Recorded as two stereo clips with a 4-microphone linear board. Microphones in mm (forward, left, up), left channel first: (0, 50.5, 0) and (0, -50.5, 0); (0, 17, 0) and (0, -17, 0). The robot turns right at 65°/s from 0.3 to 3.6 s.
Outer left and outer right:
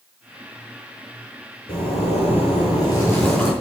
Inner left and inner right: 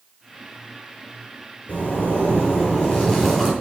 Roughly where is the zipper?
Left.